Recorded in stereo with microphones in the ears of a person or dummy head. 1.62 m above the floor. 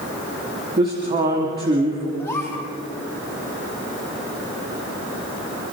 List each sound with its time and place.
0.8 s a man speaking: 30° right (ahead or behind), 3 m
2.2 s a gasp: 15° left (ahead or behind), 4 m